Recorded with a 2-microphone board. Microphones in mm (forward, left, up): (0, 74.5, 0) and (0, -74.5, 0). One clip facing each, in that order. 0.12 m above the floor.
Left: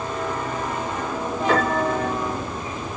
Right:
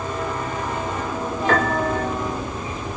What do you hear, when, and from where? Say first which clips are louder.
1.5 s a piano: even; 5° left (ahead or behind), 2.5 m